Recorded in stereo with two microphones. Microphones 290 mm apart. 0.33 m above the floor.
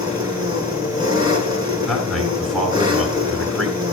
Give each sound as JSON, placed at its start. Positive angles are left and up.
{"t": 0.0, "sound": "an engine running", "side_deg": -15, "distance_m": 3.0}
{"t": 1.9, "sound": "a man speaking", "side_deg": 0, "distance_m": 4.5}